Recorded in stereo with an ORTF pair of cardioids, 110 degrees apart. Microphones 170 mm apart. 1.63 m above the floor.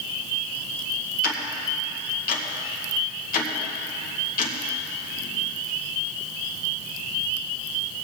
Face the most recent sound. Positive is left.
turn(degrees=60)